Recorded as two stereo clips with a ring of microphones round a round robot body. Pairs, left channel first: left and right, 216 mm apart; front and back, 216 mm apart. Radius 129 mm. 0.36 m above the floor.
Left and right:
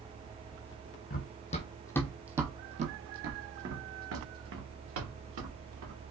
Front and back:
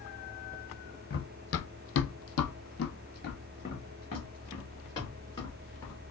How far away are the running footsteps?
About 0.9 m.